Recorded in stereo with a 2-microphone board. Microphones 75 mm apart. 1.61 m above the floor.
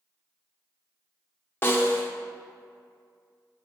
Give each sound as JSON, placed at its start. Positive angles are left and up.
{"t": 1.6, "sound": "a snare drum", "side_deg": 30, "distance_m": 0.9}